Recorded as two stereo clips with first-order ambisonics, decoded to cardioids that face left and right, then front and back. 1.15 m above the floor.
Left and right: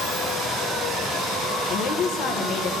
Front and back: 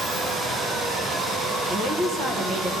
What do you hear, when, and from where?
1.7 s a woman speaking: 120° left, 1.0 m